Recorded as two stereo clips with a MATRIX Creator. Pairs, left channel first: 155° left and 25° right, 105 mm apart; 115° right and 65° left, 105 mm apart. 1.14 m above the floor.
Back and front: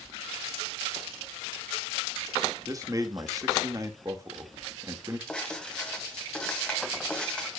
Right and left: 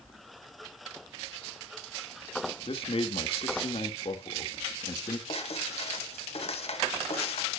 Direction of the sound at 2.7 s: 80° right.